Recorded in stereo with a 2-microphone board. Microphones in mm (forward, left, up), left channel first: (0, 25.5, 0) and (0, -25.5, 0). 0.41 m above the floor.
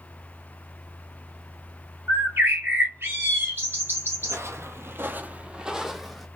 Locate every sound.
2.1 s a bird: 45° right (ahead or behind), 2.0 m
4.2 s footsteps: 60° right (ahead or behind), 0.8 m; by 6.3 s centre (ahead or behind), 0.9 m